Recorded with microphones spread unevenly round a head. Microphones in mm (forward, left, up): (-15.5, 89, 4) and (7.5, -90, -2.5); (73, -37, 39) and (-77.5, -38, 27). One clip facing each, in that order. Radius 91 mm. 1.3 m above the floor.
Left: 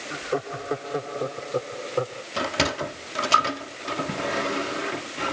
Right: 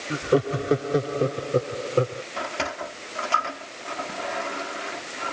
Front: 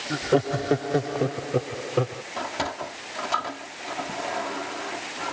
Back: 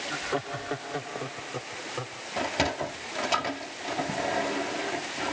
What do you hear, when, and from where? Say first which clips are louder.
0.1 s laughter: right 7 dB, front 11 dB; 40° right; by 2.2 s 25° right
2.4 s a sliding door: left 6 dB, back 2 dB; 105° left